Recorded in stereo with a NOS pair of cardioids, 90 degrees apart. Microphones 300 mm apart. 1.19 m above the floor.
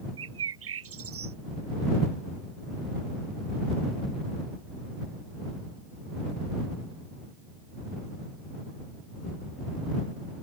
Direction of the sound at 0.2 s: 50° right.